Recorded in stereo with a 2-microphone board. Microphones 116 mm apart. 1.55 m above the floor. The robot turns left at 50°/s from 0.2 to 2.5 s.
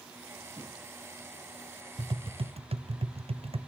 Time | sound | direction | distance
0.6 | a thud | 45° right (ahead or behind) | 4.5 m
2.0 | tapping | 40° right (ahead or behind) | 0.5 m